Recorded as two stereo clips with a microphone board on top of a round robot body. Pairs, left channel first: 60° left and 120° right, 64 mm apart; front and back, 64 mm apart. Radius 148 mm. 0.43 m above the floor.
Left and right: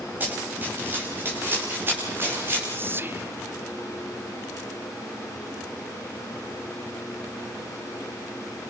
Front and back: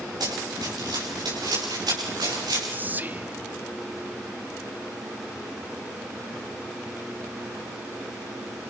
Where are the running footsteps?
Straight behind, 8.5 m; by 2.6 s 170° right, 8.5 m.